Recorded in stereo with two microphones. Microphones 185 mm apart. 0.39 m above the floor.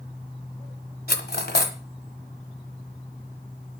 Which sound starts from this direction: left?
Cutlery clinking, at 1.1 s.